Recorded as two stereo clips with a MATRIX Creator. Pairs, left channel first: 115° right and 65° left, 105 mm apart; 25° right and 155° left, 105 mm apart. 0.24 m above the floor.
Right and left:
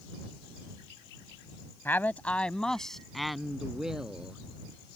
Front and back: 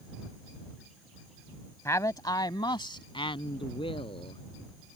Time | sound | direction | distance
1.9 | a man speaking | 60° right | ?